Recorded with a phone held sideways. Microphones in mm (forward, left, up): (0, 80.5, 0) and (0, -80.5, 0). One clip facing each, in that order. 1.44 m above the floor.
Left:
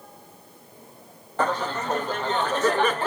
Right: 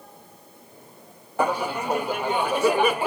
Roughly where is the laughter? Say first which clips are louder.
Right 1 dB; centre.